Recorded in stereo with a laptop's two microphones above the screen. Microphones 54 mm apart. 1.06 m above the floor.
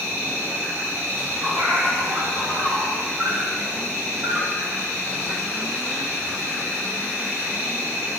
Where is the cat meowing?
60° right (ahead or behind), 2.5 m.